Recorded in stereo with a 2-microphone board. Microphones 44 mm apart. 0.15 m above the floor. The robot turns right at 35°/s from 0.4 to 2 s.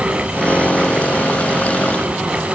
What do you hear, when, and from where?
Only background noise.